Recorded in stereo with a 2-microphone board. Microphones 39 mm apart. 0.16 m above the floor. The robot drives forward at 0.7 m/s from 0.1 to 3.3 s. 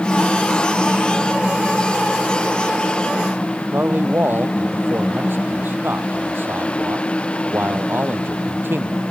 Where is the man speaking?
60° right (ahead or behind).